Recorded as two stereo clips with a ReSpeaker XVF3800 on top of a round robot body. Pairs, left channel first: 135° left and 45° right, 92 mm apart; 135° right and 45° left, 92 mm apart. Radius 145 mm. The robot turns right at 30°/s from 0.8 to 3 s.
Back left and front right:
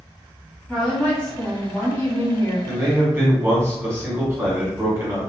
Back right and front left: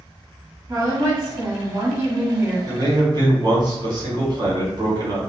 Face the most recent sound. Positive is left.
turn(degrees=15)